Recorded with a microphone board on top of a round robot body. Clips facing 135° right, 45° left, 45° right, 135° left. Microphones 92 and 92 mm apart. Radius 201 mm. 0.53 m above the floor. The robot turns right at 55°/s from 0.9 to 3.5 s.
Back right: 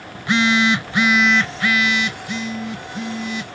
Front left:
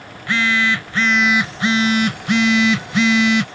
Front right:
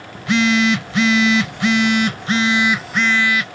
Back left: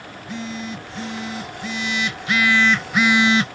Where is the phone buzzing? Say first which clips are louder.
Back right 2 dB, front right 15 dB; 65° right; by 3.5 s 75° left.